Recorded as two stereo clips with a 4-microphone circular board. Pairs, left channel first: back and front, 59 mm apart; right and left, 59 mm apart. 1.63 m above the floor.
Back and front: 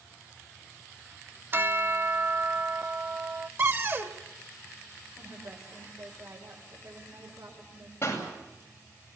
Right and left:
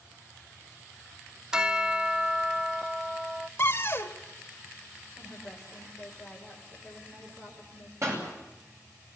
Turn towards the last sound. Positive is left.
turn(degrees=130)